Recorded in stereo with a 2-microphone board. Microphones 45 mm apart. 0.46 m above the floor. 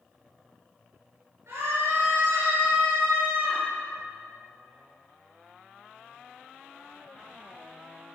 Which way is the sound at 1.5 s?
80° right.